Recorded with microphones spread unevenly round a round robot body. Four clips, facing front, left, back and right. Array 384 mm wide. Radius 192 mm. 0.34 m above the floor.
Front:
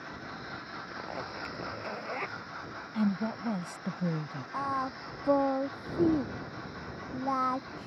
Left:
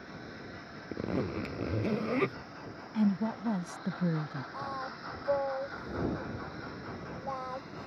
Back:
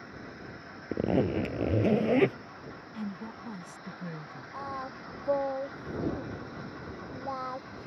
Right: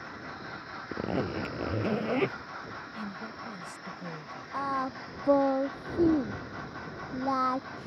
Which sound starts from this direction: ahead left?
A woman speaking, at 2.9 s.